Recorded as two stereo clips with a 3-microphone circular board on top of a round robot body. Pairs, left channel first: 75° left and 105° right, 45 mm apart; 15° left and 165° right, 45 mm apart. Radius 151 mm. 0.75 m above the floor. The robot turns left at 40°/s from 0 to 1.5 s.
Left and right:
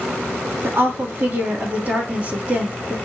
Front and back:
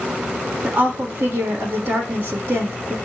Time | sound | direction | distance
0.6 | a woman speaking | 115° right | 1.7 m